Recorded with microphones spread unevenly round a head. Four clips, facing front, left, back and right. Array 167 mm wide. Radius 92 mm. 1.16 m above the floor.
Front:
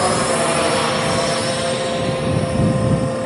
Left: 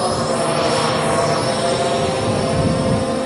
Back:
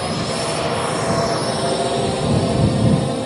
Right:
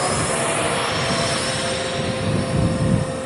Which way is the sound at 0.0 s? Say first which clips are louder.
Left 4 dB, front 5 dB; 25° left.